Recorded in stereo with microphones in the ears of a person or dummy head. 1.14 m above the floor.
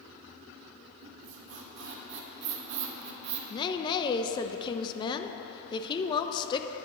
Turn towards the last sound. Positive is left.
turn(degrees=25)  # may be behind; listen again after turning